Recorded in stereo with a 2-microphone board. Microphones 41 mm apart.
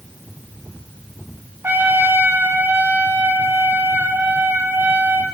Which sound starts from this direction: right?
A trumpet, at 1.6 s.